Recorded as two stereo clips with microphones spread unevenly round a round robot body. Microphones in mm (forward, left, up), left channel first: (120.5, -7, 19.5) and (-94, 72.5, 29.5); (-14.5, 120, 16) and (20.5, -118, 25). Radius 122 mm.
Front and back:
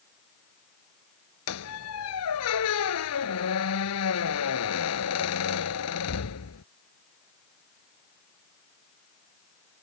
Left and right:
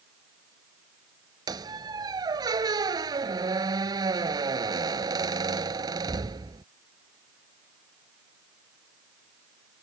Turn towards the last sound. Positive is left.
turn(degrees=-10)